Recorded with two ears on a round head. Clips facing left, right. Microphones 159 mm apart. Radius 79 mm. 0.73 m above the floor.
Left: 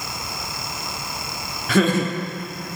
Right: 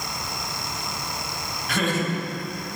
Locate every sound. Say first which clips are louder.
1.7 s laughter: left 6 dB; 70° left (ahead or behind), 1.2 m